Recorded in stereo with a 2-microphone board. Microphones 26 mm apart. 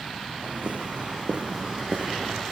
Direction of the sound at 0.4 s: 65° right (ahead or behind).